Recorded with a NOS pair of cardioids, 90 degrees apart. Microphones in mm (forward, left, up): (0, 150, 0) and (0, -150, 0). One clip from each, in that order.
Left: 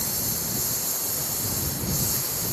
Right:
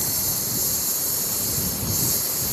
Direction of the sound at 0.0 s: 25° right.